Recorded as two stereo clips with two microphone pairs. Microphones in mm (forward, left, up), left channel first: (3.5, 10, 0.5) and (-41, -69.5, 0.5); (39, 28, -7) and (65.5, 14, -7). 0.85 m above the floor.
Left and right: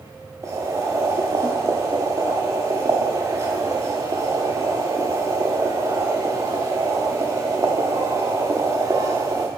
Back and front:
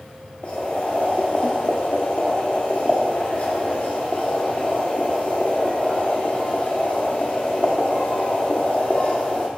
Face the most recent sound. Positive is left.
turn(degrees=-170)